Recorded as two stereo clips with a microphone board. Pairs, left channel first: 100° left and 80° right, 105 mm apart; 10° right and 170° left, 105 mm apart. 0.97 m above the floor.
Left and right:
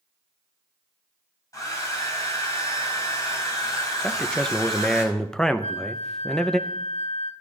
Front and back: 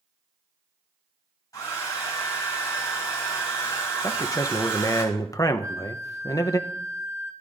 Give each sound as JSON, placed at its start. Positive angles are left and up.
{"t": 1.5, "sound": "a hair dryer", "azimuth_deg": 45, "distance_m": 4.5}
{"t": 4.0, "sound": "a man speaking", "azimuth_deg": 20, "distance_m": 0.6}
{"t": 5.6, "sound": "a flute", "azimuth_deg": 105, "distance_m": 0.8}